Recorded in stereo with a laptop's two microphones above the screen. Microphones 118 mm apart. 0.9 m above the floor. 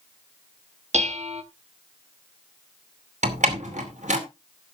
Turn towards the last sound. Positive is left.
turn(degrees=-80)